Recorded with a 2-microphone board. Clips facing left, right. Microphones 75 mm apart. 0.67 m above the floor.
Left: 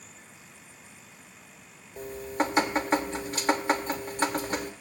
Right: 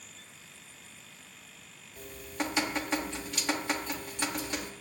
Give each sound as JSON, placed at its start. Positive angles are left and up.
{"t": 2.0, "sound": "dripping", "side_deg": 40, "distance_m": 0.8}